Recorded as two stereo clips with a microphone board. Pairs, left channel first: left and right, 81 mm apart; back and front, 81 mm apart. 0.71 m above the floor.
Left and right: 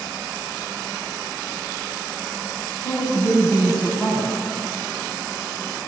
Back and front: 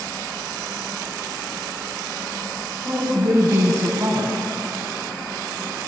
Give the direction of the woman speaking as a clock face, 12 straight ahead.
10 o'clock.